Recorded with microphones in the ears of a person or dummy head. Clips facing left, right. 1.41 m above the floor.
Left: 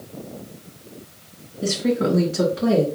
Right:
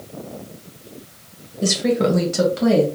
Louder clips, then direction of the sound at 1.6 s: Right 2 dB; 80° right.